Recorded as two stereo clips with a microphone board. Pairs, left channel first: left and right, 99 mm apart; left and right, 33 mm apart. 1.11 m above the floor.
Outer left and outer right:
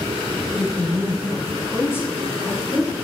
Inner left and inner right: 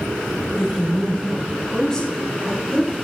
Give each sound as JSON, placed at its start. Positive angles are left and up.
{"t": 0.5, "sound": "a woman speaking", "side_deg": 10, "distance_m": 1.4}